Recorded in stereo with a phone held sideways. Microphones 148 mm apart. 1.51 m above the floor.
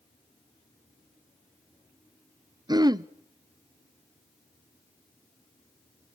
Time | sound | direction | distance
2.7 | throat clearing | 30° right (ahead or behind) | 0.5 m